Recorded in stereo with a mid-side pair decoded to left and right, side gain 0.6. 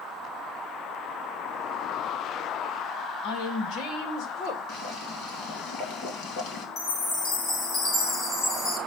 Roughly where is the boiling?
Ahead left.